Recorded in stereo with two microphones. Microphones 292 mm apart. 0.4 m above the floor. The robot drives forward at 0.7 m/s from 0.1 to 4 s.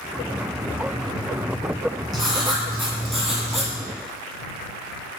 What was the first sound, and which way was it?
Writing, centre (ahead or behind).